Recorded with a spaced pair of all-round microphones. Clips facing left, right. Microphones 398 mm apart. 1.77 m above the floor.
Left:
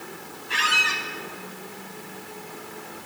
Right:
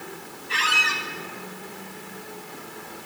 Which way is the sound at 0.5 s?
60° left (ahead or behind).